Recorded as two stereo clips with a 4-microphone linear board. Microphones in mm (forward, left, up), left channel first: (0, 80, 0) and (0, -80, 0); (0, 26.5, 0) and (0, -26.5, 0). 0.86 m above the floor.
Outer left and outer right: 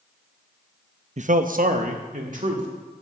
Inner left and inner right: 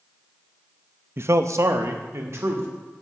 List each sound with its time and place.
1.2 s a man speaking: 50° right (ahead or behind), 0.5 m; by 2.7 s 55° right (ahead or behind), 2.5 m